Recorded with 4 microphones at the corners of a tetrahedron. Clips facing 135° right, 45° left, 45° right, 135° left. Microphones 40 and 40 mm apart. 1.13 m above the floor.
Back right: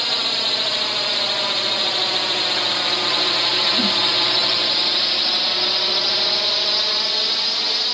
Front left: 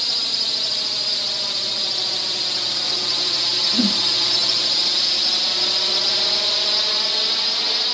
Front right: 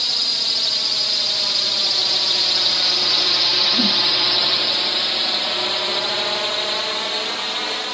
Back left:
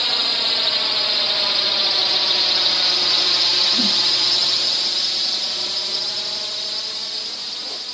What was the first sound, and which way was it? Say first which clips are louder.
A drone: back right 4 dB, back left 3 dB; 175° right.